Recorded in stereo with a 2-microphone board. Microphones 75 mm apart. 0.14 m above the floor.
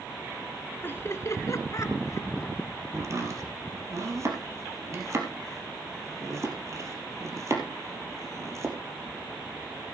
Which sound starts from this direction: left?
Laughter, at 0.8 s.